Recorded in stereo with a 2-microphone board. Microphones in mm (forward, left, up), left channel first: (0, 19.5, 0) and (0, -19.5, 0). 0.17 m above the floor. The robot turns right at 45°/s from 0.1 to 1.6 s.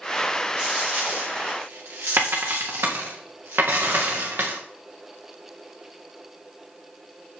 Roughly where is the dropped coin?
Right.